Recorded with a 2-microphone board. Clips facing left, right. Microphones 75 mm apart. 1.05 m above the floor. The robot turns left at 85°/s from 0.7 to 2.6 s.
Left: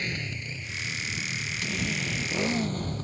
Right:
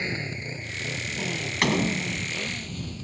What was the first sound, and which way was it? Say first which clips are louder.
A motorcycle: right 3 dB; 25° right (ahead or behind).